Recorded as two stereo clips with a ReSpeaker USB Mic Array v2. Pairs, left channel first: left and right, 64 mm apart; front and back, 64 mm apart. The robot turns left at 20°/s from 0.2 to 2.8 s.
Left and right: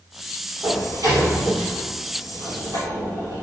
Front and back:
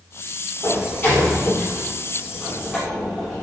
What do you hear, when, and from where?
0.6 s a sliding door: 55° right, 3.5 m; by 3.4 s 100° right, 3.5 m